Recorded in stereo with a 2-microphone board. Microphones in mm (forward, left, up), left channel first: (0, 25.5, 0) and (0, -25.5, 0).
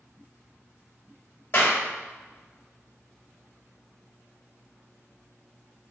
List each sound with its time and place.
1.5 s a clap: 40° left (ahead or behind), 1.9 m